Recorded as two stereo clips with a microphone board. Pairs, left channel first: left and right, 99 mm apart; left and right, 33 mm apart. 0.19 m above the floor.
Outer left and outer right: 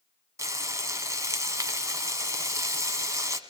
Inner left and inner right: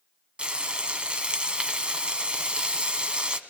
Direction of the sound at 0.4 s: 30° right (ahead or behind).